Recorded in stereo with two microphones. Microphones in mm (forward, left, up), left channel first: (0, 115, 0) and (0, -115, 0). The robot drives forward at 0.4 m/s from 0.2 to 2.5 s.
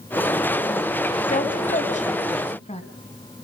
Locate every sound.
1.3 s a woman speaking: 35° left (ahead or behind), 1.5 m; by 2.8 s 30° left (ahead or behind), 1.7 m